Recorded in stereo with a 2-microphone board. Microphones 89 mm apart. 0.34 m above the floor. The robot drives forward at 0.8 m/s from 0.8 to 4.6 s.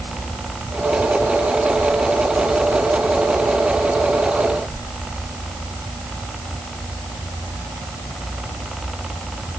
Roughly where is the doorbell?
I don't hear a doorbell.